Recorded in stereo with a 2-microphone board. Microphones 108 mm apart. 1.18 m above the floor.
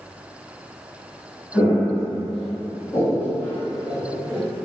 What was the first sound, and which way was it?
Footsteps, 45° left (ahead or behind).